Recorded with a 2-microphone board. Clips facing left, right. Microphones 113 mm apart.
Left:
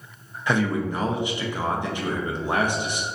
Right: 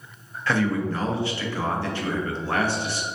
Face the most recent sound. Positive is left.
turn(degrees=15)  # may be behind; listen again after turning